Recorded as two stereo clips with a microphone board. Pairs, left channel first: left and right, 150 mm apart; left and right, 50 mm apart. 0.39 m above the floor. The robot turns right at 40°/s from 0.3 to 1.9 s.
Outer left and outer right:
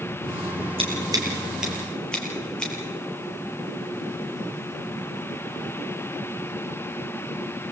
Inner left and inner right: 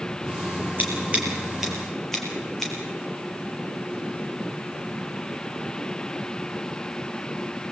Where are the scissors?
40° right (ahead or behind), 6 m; by 2.7 s 5° left (ahead or behind), 6 m.